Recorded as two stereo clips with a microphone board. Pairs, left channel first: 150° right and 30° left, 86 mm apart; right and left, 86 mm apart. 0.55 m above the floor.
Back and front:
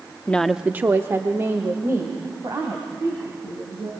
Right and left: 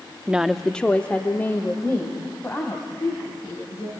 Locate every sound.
0.3 s a woman speaking: 155° left, 0.6 m; by 3.9 s 25° right, 5 m